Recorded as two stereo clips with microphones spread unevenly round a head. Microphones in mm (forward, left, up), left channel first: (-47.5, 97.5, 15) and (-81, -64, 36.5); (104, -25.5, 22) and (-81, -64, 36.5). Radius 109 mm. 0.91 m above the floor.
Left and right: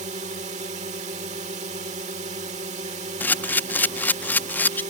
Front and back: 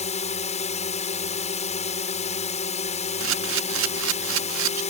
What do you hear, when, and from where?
0.0 s a drone: 40° right
3.2 s a camera shutter: 160° left